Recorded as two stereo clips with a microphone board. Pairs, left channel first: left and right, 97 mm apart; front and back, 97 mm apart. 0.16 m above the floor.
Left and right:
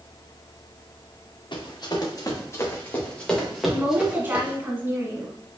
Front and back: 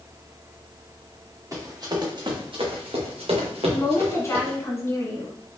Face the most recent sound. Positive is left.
turn(degrees=-35)